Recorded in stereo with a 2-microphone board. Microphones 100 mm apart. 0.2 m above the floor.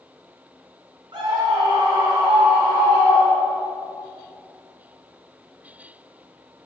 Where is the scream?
50° right (ahead or behind), 2 m; by 3.7 s 70° right (ahead or behind), 5 m.